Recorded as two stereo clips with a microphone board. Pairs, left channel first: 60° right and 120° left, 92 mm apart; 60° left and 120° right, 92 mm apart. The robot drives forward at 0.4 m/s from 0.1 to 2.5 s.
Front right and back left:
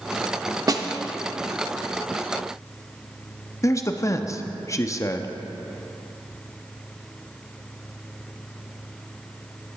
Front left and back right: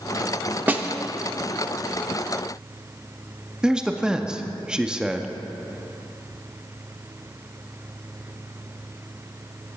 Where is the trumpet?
No trumpet in this recording.